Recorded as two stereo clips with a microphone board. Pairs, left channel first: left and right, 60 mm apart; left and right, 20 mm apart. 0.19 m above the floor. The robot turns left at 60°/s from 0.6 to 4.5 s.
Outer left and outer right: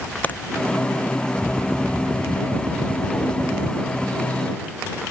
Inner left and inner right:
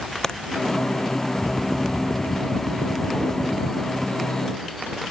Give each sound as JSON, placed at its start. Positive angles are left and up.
{"t": 0.2, "sound": "a crack", "side_deg": 30}